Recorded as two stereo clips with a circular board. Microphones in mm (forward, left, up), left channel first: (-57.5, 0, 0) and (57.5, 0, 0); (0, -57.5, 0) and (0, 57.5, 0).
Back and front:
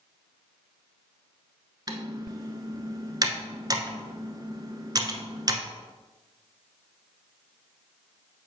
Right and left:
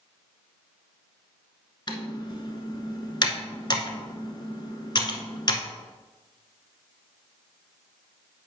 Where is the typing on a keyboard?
50° right, 0.9 m.